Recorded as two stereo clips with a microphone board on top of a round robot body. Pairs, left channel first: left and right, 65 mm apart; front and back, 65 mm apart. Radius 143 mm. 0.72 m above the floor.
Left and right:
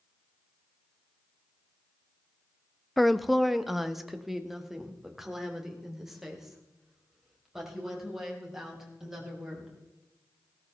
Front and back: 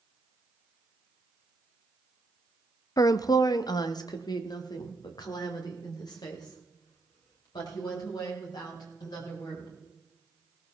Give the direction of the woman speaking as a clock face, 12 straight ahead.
12 o'clock.